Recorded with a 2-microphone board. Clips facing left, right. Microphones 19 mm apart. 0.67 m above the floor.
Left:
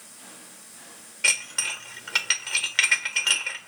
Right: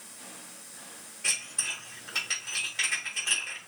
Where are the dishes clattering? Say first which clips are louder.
Left 7 dB; 80° left, 1.2 m.